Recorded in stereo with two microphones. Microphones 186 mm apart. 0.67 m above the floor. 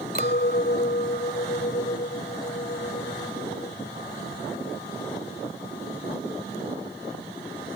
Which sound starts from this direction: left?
A clink, at 0.1 s.